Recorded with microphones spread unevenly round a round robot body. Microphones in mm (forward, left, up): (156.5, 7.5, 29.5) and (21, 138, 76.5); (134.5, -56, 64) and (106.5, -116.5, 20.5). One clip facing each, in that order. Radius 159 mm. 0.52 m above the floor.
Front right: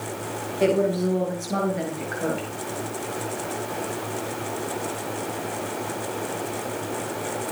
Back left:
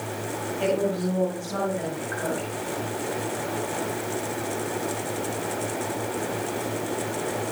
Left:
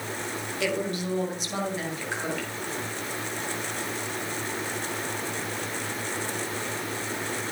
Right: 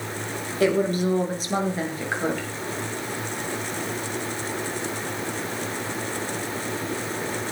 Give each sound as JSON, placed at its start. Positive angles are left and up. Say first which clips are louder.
{"t": 0.6, "sound": "a woman speaking", "louder": "front right 4 dB, right 8 dB", "azimuth_deg": -90, "distance_m": 8.0}